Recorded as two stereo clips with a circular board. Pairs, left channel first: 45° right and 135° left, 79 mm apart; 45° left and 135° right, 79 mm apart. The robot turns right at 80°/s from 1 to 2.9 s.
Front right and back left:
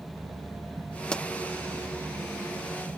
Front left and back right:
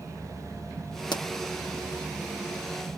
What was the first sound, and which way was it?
A pop, 30° left.